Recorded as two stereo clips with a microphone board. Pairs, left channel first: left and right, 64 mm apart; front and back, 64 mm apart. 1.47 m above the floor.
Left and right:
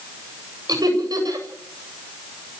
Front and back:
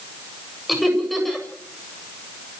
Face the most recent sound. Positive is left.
turn(degrees=-90)